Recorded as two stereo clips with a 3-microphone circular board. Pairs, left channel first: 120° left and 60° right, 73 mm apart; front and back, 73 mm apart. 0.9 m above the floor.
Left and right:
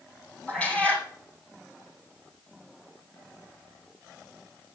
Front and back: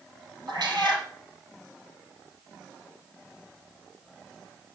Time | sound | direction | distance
0.5 | a cat meowing | 165° right | 3 m